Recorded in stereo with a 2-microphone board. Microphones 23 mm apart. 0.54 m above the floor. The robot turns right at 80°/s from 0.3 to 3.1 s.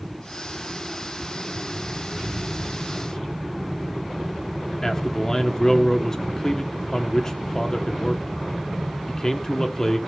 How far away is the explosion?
About 8 m.